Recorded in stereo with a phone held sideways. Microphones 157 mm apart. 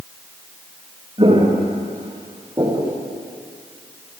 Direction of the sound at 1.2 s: 30° right (ahead or behind).